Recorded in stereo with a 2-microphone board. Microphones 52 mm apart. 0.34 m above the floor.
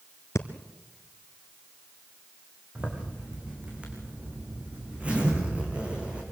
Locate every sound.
0.3 s breathing: 70° left (ahead or behind), 1.1 m
2.8 s a zipper: 20° right (ahead or behind), 4.5 m